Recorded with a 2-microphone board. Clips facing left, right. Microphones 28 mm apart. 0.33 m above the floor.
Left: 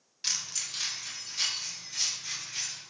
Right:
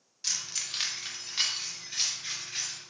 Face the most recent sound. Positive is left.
turn(degrees=-70)  # may be behind; listen again after turning